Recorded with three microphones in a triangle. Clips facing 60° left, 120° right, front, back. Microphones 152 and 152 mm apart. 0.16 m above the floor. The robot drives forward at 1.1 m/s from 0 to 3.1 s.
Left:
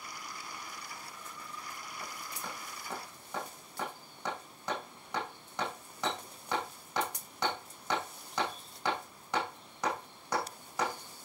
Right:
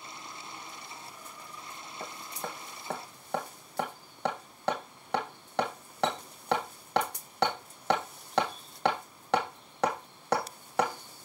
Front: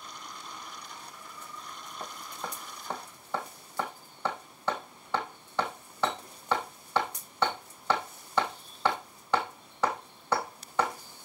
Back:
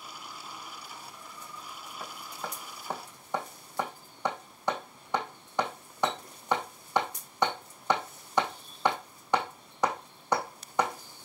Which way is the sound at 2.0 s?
80° right.